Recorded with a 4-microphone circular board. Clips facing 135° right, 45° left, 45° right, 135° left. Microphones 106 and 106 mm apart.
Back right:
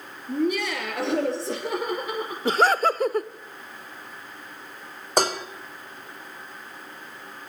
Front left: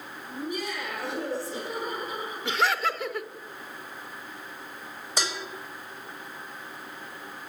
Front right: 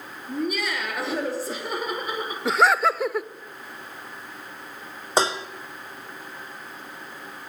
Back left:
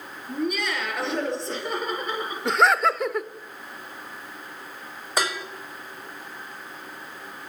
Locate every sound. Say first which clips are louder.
0.3 s laughter: back right 9 dB, even; 135° right, 8 m; by 2.4 s 125° right, 8.5 m
2.5 s laughter: back right 6 dB, even; 130° right, 0.9 m
5.2 s dishes clattering: back right 10 dB, front right 5 dB; 105° right, 1.4 m